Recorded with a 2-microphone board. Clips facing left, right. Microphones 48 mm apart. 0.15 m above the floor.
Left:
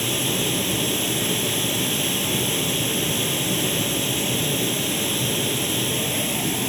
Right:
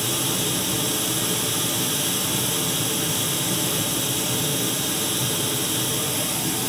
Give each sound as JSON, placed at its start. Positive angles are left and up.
{"t": 0.0, "sound": "running water", "side_deg": 35, "distance_m": 1.7}